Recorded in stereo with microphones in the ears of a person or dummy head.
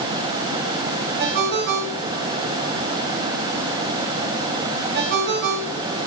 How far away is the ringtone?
About 3 m.